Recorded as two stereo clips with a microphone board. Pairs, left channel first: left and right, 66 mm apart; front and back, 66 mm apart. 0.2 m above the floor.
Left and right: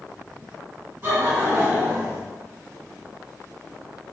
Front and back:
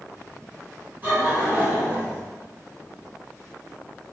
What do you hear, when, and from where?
1.0 s laughter: 125° right, 1.9 m; by 2.2 s 150° right, 1.7 m